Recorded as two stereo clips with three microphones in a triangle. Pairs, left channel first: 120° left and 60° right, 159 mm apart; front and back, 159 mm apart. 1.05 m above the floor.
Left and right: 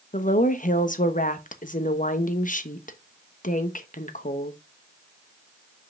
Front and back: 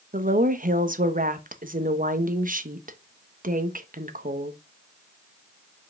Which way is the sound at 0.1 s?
150° left.